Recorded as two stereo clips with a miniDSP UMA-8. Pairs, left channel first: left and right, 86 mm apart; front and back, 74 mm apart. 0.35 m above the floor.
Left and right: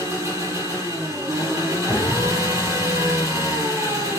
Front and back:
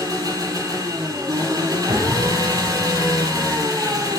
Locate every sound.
0.0 s an engine running: 140° right, 4 m
1.9 s an explosion: 175° right, 2 m